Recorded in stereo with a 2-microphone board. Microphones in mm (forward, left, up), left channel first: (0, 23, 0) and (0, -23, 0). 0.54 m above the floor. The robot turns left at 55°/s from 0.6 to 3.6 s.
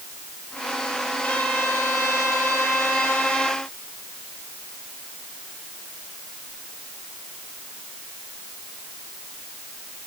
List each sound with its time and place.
1.2 s a trumpet: 150° left, 7 m; by 3.6 s 20° left, 7 m